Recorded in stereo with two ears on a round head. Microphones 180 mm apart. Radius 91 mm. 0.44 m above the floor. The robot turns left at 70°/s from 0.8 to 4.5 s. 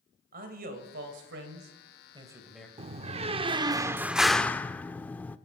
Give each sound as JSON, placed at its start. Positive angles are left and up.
{"t": 0.3, "sound": "a man speaking", "azimuth_deg": -55, "distance_m": 2.5}
{"t": 2.8, "sound": "a door slam", "azimuth_deg": -75, "distance_m": 0.5}